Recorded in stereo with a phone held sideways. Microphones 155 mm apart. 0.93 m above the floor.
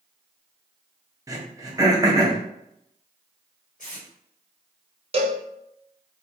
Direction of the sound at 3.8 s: 60° left (ahead or behind).